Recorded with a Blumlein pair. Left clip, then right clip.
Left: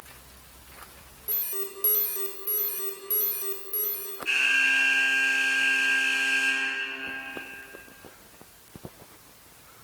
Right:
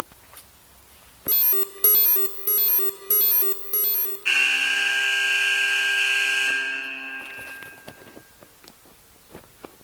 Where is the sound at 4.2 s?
55° right, 0.9 m.